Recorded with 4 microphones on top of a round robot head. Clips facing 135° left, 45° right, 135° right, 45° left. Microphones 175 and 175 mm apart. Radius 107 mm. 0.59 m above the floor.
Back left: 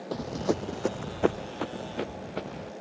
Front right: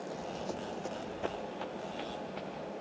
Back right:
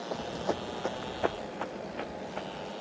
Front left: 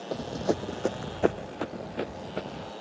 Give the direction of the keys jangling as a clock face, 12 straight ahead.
I don't hear keys jangling.